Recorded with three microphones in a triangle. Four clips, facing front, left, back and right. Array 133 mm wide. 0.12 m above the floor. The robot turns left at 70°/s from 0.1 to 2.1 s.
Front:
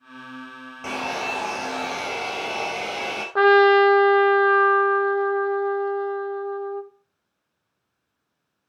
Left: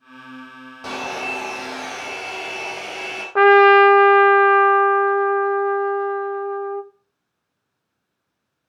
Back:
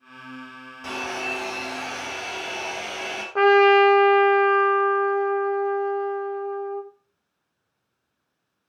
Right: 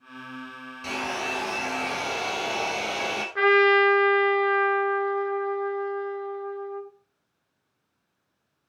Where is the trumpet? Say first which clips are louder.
Left 9 dB, front 1 dB; 75° left, 0.8 m.